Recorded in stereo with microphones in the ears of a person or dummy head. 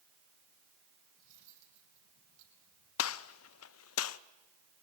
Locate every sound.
1.2 s cutlery clinking: 70° right (ahead or behind), 6.5 m
3.0 s a gunshot: 85° left, 0.7 m